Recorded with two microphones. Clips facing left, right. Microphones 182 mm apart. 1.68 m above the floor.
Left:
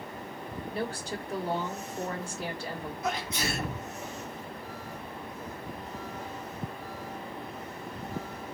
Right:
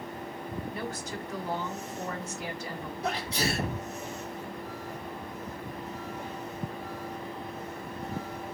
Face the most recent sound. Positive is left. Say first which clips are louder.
# right 2 dB
turn(degrees=-35)  # may be behind; listen again after turning